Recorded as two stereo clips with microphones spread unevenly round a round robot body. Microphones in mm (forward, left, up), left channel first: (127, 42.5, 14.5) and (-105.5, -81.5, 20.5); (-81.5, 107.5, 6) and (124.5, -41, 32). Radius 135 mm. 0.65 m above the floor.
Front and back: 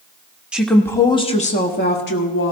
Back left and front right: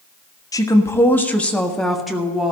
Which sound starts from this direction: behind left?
A woman speaking, at 0.5 s.